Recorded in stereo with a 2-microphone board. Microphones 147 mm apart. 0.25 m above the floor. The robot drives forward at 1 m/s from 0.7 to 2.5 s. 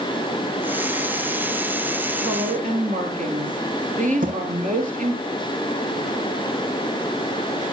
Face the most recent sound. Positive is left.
turn(degrees=-70)  # may be behind; listen again after turning